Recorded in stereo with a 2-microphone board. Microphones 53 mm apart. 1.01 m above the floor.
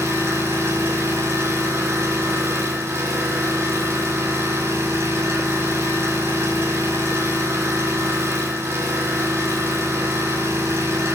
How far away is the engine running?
About 5 m.